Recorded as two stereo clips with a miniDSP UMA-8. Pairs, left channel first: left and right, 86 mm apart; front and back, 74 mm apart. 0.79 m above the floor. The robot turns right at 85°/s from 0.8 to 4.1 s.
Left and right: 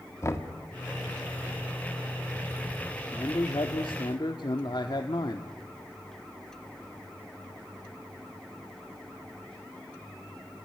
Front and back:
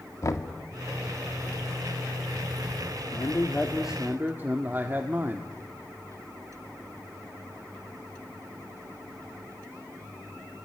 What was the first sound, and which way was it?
Knocking, 40° left.